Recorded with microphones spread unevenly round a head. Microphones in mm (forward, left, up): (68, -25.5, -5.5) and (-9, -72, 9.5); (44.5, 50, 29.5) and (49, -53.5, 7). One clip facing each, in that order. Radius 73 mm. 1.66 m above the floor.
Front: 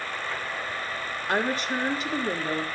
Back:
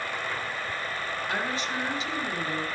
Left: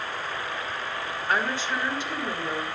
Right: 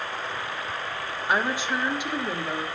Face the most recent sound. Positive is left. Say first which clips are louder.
# front 6 dB, right 2 dB
turn(degrees=-10)